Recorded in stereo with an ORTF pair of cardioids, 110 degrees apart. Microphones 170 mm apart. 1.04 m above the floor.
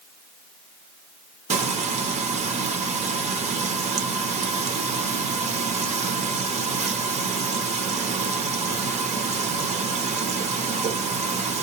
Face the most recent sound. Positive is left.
turn(degrees=-40)